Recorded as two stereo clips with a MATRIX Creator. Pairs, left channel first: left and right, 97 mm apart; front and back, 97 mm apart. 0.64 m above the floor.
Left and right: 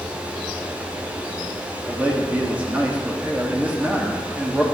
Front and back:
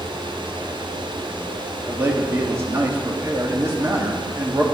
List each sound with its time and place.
1.9 s a man speaking: 145° right, 1.2 m